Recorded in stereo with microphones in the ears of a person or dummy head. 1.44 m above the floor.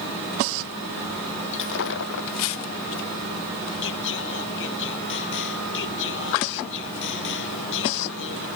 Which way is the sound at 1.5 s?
65° left (ahead or behind).